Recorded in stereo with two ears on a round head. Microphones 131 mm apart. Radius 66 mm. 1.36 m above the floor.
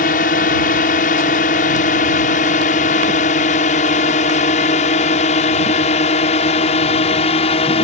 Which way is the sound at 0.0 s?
60° left (ahead or behind).